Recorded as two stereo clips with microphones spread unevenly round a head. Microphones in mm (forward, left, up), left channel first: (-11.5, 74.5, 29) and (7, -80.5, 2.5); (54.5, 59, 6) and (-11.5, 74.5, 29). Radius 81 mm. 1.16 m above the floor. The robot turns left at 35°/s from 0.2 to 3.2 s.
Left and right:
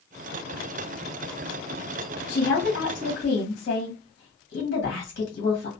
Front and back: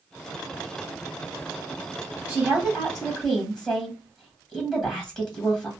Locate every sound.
2.3 s a woman speaking: 100° left, 1.8 m; by 5.7 s 70° left, 1.8 m